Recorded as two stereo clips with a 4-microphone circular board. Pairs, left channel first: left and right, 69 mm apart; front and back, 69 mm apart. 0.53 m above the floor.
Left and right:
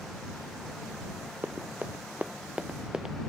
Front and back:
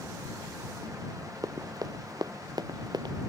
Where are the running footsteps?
150° right; by 3.2 s 175° right.